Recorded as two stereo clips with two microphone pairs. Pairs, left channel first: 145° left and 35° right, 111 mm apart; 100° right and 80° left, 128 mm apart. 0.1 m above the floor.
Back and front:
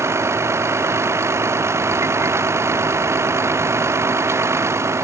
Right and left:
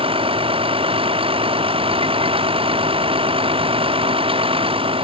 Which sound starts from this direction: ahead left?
A vehicle, at 0.0 s.